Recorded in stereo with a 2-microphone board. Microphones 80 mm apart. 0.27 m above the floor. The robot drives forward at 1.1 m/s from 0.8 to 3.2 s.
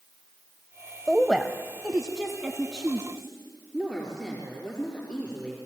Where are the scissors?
No scissors in this recording.